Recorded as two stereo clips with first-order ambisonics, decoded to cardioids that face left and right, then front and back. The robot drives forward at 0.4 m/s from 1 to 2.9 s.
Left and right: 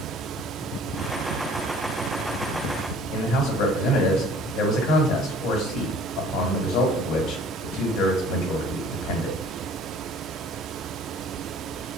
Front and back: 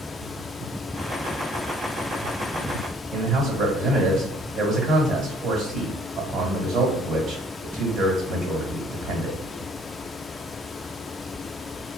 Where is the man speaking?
125° left, 1.4 m.